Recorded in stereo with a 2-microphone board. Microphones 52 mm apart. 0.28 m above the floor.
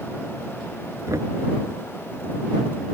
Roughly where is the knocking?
Right.